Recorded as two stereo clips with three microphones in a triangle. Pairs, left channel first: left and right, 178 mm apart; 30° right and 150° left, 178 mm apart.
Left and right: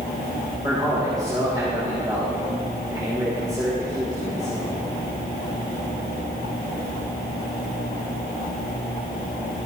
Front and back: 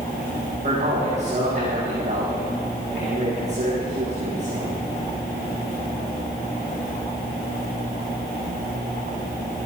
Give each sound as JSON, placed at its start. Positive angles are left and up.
{"t": 0.6, "sound": "a man speaking", "azimuth_deg": -160, "distance_m": 5.5}